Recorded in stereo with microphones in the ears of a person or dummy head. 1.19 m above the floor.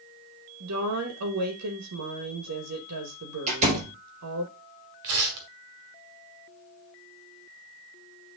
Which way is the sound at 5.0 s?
55° right (ahead or behind).